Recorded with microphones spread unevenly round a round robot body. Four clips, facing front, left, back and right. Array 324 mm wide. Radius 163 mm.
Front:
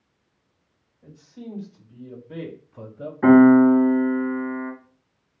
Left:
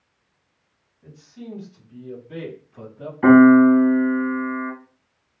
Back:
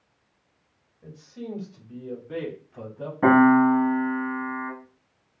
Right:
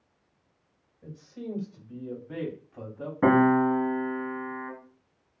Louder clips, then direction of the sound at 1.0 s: Right 1 dB, back 2 dB; 135° right.